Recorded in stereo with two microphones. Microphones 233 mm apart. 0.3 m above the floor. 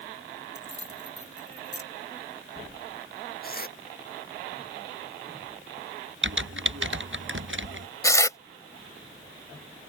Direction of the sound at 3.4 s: 40° left (ahead or behind).